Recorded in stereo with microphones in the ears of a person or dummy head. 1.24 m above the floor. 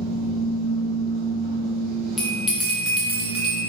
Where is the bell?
Centre (ahead or behind), 1.0 m.